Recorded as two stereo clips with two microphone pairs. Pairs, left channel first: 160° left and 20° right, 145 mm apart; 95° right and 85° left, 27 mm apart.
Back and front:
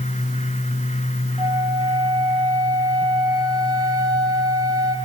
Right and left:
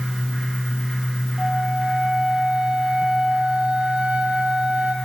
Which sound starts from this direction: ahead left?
A flute, at 1.4 s.